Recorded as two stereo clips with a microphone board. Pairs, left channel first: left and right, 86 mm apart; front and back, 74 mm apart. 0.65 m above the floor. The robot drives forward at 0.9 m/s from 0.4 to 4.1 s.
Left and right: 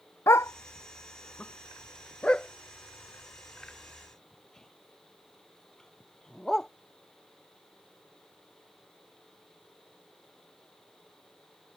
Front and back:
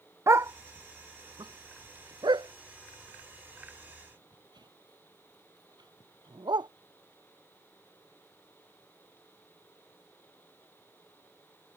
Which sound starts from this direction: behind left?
A dog barking, at 0.3 s.